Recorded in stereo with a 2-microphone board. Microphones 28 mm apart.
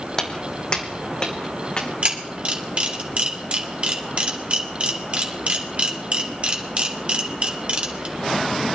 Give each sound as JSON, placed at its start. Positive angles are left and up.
{"t": 0.2, "sound": "footsteps", "side_deg": 20, "distance_m": 1.5}
{"t": 2.0, "sound": "a camera shutter", "side_deg": -45, "distance_m": 2.0}